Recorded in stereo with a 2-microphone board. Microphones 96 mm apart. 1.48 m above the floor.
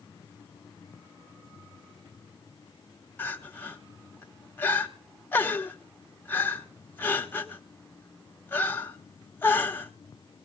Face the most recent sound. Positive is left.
turn(degrees=25)  # may be behind; listen again after turning